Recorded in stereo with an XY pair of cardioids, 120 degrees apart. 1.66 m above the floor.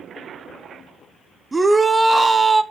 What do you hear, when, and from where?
1.5 s a shout: 20° right, 0.8 m